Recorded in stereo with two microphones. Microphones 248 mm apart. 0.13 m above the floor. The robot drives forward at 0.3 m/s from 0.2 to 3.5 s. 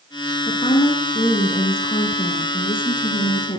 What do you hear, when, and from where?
0.5 s a woman speaking: 25° left (ahead or behind), 1.8 m; by 3.6 s 20° left (ahead or behind), 2 m